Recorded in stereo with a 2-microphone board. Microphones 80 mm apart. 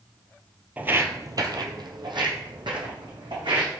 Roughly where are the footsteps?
Centre.